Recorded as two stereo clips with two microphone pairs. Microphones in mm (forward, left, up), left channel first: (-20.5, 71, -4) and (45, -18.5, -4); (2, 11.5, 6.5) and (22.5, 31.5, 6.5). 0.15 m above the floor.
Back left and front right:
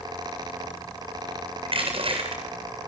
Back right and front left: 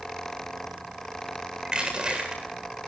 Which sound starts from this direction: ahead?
Crushing, at 1.6 s.